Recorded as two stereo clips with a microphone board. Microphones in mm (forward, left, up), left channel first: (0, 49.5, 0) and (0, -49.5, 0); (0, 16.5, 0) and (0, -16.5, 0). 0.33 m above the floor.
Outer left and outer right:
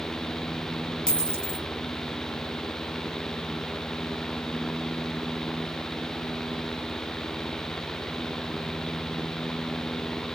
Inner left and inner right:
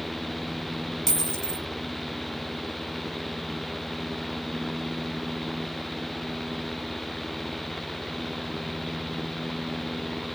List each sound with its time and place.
1.1 s a dropped coin: 10° left (ahead or behind), 1.3 m